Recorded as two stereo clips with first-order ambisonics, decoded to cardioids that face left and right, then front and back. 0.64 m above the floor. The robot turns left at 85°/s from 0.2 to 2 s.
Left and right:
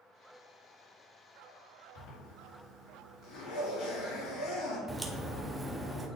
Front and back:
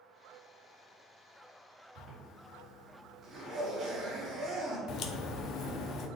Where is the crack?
Straight ahead, 0.6 m.